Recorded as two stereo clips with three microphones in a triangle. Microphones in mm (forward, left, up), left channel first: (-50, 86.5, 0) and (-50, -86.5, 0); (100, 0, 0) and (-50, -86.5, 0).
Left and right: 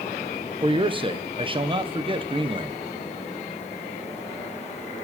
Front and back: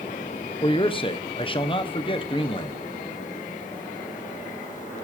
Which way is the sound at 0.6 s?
30° right.